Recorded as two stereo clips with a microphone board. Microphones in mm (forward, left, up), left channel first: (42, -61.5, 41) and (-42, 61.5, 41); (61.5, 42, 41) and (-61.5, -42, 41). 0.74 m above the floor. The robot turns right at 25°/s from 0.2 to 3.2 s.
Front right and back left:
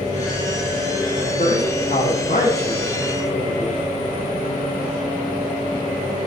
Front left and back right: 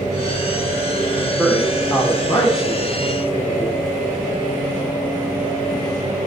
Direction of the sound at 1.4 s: 55° right.